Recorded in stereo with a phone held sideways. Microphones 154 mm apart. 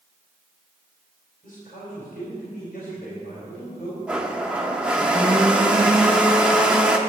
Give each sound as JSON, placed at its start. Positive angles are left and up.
{"t": 1.4, "sound": "a man speaking", "side_deg": 65, "distance_m": 4.0}
{"t": 4.1, "sound": "a blender", "side_deg": -5, "distance_m": 0.8}